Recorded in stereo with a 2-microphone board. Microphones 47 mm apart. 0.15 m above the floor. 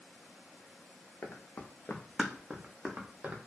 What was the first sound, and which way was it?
Running footsteps, 65° left (ahead or behind).